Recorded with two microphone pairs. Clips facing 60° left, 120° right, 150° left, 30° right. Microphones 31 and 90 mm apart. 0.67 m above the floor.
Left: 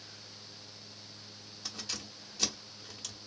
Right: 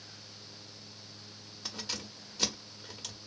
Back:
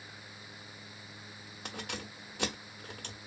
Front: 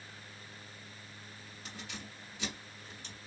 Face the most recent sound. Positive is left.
turn(degrees=160)